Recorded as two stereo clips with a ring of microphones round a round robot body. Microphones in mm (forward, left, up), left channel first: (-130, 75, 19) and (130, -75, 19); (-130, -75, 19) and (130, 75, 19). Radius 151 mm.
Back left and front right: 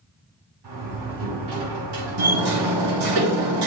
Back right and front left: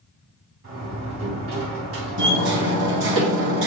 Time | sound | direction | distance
0.6 | a door slam | 20° right | 4 m
2.2 | hammering | 20° right | 3 m